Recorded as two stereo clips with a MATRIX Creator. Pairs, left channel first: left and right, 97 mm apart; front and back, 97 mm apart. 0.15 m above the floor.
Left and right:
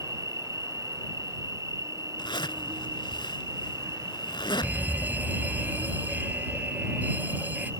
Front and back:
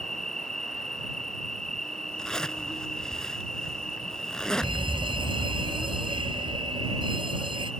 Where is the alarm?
160° right.